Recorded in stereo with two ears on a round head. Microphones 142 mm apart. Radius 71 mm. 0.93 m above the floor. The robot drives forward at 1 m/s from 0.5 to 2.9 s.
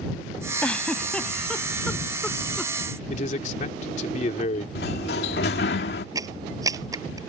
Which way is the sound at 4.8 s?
75° left (ahead or behind).